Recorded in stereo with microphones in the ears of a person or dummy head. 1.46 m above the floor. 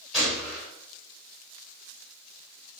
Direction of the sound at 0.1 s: 5° left (ahead or behind).